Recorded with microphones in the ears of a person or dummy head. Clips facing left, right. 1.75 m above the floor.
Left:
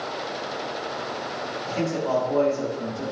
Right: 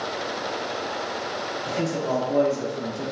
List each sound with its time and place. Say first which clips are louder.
1.6 s a man speaking: left 1 dB; 70° right (ahead or behind), 1.6 m